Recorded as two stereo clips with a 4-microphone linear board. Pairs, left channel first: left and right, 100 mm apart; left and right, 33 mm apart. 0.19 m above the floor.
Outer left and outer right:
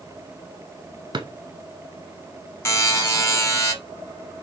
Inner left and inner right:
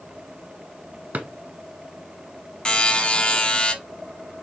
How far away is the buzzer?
About 1.3 m.